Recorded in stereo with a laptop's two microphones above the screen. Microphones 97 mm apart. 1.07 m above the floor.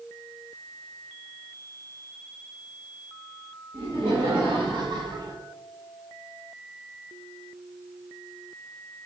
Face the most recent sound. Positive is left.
turn(degrees=-35)  # may be behind; listen again after turning